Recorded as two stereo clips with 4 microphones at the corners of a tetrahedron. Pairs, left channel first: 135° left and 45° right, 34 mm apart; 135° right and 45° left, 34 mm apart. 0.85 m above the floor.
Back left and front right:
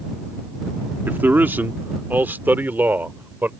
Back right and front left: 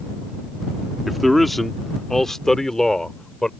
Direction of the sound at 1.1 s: 40° right.